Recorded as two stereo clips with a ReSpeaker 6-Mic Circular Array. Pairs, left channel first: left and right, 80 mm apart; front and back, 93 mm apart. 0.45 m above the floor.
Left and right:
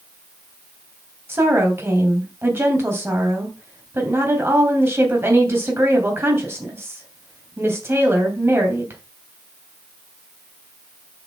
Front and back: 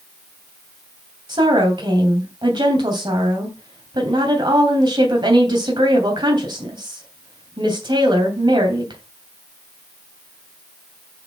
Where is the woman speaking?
150° right, 3 m.